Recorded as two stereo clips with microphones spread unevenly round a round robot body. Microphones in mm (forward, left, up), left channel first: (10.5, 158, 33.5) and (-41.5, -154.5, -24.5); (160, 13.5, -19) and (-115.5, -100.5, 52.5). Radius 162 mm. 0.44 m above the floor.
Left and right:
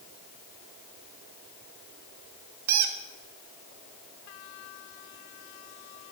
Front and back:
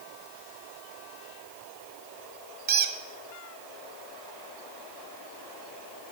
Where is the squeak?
95° right, 0.8 m.